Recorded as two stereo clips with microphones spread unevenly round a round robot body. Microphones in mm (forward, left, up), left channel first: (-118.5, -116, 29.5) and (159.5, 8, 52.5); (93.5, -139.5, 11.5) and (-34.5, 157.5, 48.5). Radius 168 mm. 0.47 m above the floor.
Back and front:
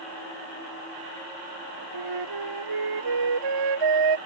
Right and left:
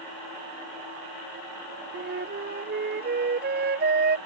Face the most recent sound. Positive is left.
turn(degrees=55)